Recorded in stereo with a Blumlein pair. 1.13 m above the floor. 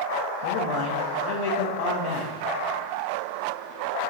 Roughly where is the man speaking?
Ahead left.